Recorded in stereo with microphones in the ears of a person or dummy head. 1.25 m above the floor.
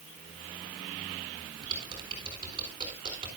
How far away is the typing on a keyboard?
About 4 m.